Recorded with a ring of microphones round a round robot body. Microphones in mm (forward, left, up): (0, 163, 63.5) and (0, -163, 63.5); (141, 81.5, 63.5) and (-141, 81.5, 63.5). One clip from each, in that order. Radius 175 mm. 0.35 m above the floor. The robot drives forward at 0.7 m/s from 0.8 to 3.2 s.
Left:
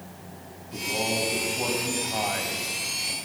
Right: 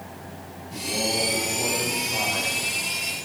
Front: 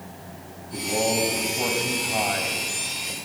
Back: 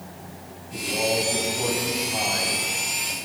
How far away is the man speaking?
About 3.5 m.